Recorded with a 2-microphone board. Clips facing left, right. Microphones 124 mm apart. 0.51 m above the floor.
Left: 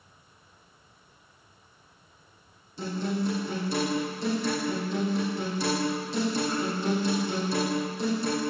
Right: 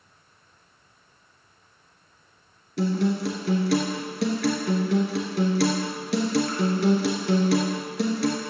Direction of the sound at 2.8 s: 85° right.